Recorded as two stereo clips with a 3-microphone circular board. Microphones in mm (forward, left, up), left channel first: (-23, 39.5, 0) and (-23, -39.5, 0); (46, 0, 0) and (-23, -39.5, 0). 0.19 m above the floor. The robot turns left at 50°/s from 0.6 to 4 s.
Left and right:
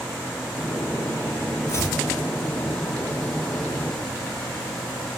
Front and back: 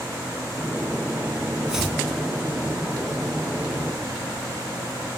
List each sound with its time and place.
1.7 s chopping: 135° left, 1.2 m; by 2.0 s 115° left, 1.2 m